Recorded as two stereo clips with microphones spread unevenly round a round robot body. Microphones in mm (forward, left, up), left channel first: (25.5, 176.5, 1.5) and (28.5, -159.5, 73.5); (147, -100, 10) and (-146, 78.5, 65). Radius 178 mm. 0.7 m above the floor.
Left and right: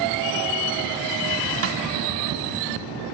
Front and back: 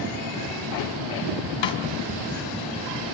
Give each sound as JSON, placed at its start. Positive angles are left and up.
{"t": 1.6, "sound": "a snare drum", "azimuth_deg": -35, "distance_m": 3.0}